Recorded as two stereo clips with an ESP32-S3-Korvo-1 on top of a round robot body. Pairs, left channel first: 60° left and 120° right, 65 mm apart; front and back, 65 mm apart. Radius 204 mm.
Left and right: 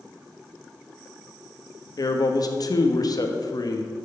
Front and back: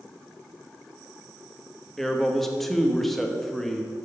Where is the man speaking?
90° left, 1.3 m.